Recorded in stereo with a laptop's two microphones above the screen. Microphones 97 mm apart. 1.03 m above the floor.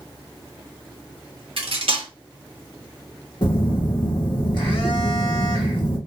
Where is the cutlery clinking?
75° right (ahead or behind), 0.7 m.